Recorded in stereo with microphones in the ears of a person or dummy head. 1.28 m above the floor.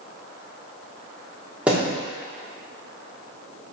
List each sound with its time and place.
1.7 s a thud: 10° right (ahead or behind), 1.3 m